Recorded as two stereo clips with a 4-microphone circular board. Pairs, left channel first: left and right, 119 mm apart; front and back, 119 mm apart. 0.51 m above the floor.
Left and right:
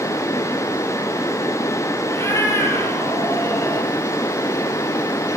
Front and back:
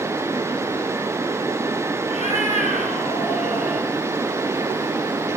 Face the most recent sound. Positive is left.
turn(degrees=25)